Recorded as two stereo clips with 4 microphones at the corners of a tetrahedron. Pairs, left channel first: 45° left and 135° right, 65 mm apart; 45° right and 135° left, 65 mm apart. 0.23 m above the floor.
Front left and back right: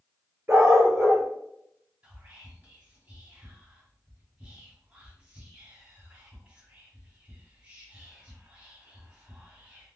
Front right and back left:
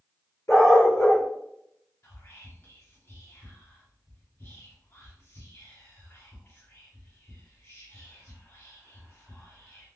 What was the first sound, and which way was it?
A dog barking, 85° right.